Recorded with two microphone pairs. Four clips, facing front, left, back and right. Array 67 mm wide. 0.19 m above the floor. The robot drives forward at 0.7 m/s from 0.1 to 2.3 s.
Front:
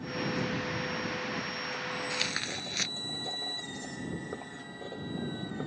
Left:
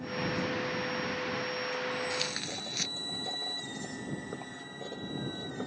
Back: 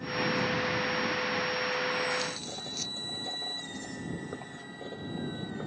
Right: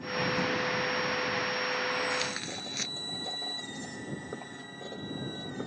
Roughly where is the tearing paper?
Ahead.